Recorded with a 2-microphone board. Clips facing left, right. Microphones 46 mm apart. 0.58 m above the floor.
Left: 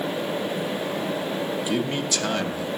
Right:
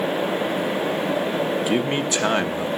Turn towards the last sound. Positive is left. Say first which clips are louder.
# right 4 dB
turn(degrees=-30)  # may be behind; listen again after turning